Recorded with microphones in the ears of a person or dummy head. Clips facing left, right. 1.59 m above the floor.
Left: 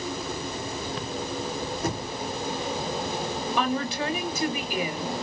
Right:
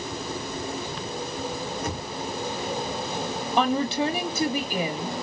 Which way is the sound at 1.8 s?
30° left (ahead or behind).